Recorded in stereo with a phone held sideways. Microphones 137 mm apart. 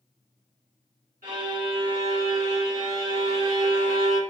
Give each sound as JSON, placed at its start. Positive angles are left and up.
{"t": 1.2, "sound": "a violin", "side_deg": -70, "distance_m": 1.8}